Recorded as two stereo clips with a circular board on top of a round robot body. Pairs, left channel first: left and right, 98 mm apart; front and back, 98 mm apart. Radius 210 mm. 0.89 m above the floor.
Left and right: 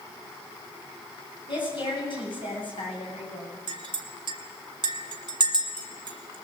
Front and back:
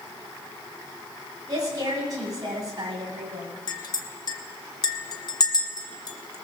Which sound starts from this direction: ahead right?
A clink, at 3.7 s.